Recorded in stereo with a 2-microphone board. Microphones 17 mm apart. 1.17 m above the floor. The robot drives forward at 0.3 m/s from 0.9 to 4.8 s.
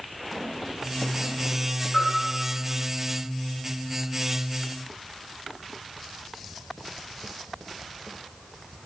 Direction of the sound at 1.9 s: 80° left.